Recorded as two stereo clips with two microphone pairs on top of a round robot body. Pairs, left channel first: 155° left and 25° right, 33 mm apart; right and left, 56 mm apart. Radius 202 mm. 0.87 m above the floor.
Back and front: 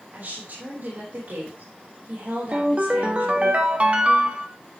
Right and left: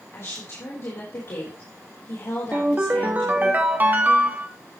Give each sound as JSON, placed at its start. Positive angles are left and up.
{"t": 0.1, "sound": "a woman speaking", "azimuth_deg": -55, "distance_m": 4.0}
{"t": 2.5, "sound": "a ringtone", "azimuth_deg": 30, "distance_m": 1.4}